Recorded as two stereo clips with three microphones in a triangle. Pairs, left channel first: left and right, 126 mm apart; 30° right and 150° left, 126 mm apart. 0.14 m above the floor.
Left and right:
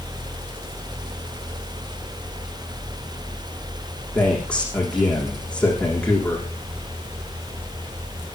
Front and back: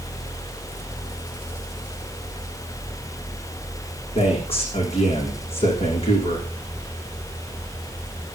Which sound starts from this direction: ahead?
A man speaking, at 4.2 s.